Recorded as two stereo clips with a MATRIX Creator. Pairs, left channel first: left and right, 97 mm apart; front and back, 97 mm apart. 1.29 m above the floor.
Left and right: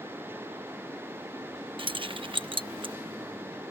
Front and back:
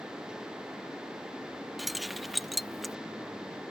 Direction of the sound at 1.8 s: 90° right.